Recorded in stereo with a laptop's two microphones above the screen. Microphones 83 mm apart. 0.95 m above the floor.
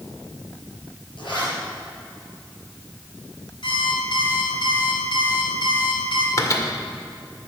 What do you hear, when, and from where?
1.2 s a zipper: 80° left, 4.5 m
3.6 s an alarm clock: 80° left, 2.5 m
6.4 s a microwave: 40° left (ahead or behind), 1.8 m